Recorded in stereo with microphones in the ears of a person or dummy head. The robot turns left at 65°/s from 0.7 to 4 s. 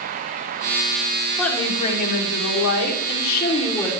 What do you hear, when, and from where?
1.4 s a woman speaking: 175° left, 3.5 m; by 3.9 s 10° left, 3.5 m